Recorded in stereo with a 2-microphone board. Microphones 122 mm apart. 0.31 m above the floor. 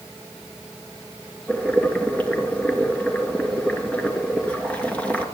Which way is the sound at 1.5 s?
10° left (ahead or behind).